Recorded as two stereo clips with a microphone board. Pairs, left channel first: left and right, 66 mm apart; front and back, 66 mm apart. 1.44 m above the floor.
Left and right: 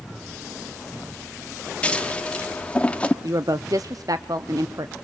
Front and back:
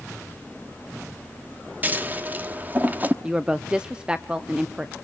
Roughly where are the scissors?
Behind left.